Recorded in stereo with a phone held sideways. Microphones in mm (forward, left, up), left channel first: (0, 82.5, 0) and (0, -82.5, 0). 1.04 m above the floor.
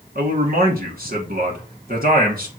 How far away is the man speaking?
About 2 m.